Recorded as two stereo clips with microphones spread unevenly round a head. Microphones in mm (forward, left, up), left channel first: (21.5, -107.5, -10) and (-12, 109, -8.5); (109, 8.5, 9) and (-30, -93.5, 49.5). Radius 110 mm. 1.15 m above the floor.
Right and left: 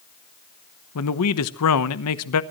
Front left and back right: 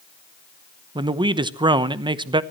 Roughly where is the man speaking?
Right.